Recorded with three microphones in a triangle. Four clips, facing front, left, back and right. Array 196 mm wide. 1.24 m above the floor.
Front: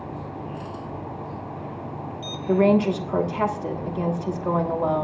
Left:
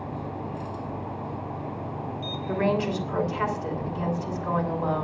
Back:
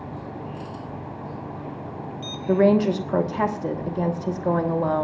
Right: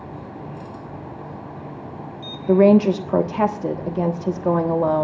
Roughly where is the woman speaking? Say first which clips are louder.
Right 12 dB, back 1 dB; right.